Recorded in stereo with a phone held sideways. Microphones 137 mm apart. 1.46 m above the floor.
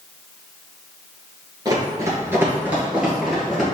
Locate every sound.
1.6 s running footsteps: 30° right (ahead or behind), 1.7 m; by 3.6 s centre (ahead or behind), 2 m